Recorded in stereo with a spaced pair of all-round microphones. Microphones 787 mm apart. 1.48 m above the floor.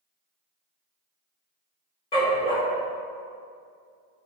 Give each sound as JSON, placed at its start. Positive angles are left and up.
{"t": 2.1, "sound": "a dog barking", "side_deg": 60, "distance_m": 1.9}